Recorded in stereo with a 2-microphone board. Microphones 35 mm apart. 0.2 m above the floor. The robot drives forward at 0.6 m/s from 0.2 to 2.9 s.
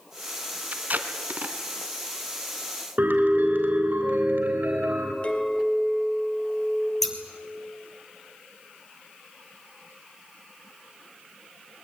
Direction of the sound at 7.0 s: 10° left (ahead or behind).